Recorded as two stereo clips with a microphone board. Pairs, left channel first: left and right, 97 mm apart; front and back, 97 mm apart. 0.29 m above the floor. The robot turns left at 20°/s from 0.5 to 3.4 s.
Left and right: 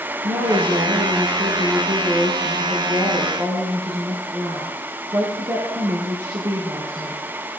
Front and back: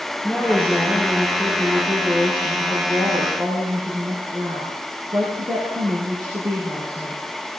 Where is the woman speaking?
75° right, 6 m; by 7.3 s 135° right, 6 m.